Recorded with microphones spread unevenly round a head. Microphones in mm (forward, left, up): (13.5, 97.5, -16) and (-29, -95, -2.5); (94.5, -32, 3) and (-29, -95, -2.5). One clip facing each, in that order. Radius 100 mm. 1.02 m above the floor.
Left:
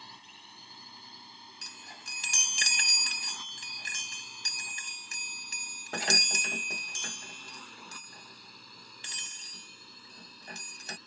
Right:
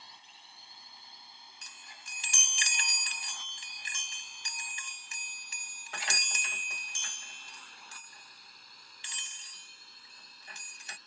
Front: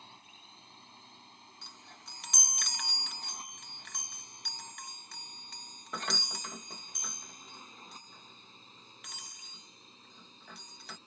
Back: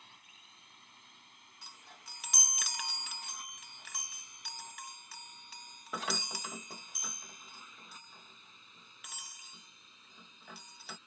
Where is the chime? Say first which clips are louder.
Left 7 dB, even; 120° left.